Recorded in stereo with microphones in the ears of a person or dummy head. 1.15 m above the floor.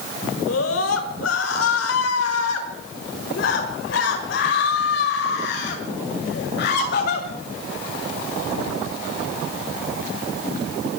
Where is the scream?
85° left, 5 m; by 7.3 s 60° left (ahead or behind), 7 m.